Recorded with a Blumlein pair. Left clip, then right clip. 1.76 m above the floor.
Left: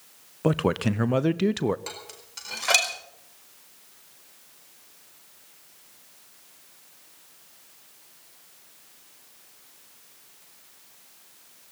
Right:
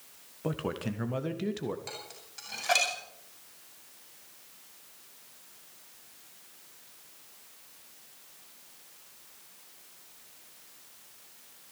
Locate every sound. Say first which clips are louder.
0.4 s a man speaking: left 10 dB; 25° left, 0.7 m
1.9 s dishes clattering: left 3 dB; 45° left, 4.5 m